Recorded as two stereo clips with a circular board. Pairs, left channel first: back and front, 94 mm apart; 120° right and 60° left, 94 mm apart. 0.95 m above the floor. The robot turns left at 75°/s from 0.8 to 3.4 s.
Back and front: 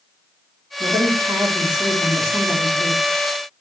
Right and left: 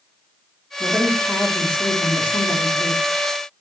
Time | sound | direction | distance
0.8 | a woman speaking | 15° right | 2.5 m